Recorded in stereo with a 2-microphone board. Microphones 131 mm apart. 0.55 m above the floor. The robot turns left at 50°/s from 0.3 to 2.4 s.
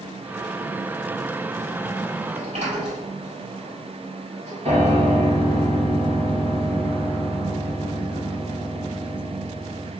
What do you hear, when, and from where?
2.3 s a sliding door: 70° right (ahead or behind), 2 m; by 5.0 s 65° right (ahead or behind), 2 m
4.7 s a piano: 60° right (ahead or behind), 1.8 m